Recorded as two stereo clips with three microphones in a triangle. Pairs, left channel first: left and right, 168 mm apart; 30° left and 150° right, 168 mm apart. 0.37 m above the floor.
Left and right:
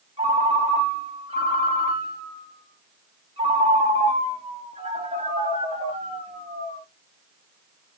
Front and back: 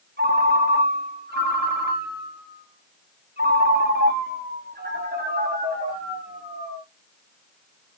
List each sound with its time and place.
0.2 s a ringtone: 145° right, 3 m